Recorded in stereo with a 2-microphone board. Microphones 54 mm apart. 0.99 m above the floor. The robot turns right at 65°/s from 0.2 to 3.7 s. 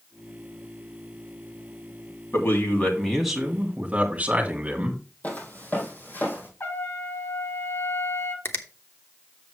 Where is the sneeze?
I don't hear a sneeze.